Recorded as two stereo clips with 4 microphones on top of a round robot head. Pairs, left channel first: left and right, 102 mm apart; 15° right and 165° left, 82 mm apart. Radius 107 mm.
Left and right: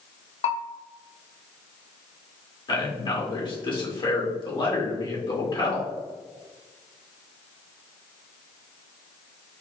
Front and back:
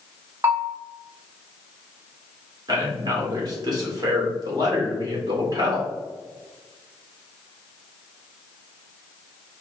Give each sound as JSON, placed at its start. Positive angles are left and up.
{"t": 0.4, "sound": "a bell", "azimuth_deg": 100, "distance_m": 0.8}
{"t": 2.7, "sound": "a man speaking", "azimuth_deg": 125, "distance_m": 1.7}